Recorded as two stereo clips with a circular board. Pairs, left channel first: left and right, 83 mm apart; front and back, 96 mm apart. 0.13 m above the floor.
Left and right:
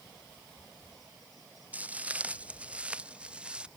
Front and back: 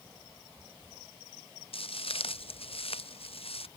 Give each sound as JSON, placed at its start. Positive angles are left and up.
{"t": 1.7, "sound": "footsteps", "azimuth_deg": -20}